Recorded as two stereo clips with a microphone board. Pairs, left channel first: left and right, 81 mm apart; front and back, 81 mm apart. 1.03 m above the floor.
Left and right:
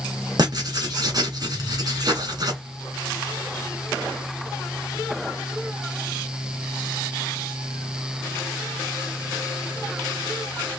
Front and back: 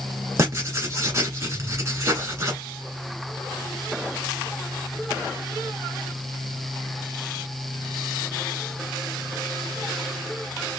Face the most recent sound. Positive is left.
turn(degrees=-130)